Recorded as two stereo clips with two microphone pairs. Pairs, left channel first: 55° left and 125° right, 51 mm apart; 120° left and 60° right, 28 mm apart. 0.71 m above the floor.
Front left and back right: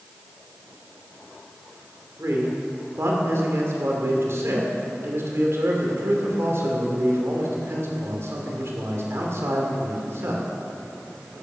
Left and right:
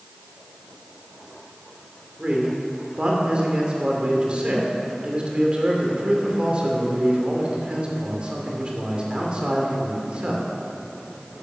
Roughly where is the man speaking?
Right.